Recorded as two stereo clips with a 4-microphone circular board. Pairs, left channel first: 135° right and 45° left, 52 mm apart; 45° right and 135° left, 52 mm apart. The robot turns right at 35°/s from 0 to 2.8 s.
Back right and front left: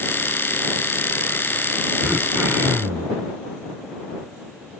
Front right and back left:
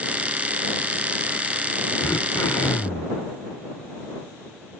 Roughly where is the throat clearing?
Ahead.